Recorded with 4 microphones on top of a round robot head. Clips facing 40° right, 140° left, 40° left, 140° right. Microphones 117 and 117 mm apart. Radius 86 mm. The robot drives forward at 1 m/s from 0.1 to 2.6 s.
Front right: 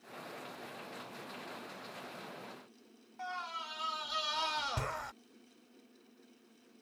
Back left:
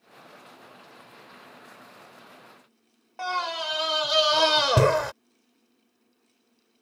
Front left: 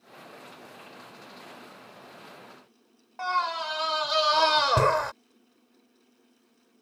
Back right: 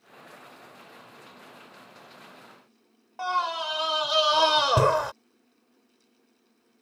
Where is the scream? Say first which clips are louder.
Back left 13 dB, back right 1 dB; 140° left.